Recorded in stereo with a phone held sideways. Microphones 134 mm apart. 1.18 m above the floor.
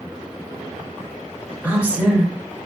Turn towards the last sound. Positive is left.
turn(degrees=-10)  # may be behind; listen again after turning